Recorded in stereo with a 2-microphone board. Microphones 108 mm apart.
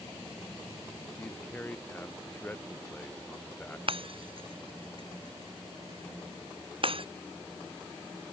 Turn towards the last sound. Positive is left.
turn(degrees=-55)  # may be behind; listen again after turning